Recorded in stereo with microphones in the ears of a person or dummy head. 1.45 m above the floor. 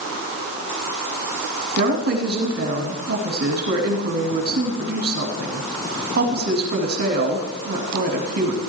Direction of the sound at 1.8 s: 45° right (ahead or behind).